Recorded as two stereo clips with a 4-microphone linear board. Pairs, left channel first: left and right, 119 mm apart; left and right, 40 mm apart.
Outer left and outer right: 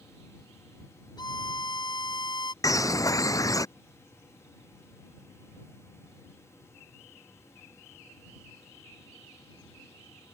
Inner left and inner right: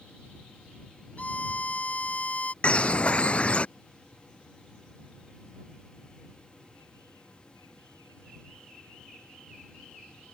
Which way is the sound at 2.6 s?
30° left (ahead or behind).